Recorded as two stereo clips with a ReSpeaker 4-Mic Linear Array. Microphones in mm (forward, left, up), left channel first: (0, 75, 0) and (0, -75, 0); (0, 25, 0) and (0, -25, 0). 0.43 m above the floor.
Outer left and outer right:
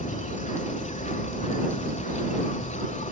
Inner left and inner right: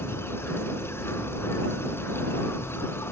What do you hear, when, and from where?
0.0 s an insect: 55° left (ahead or behind)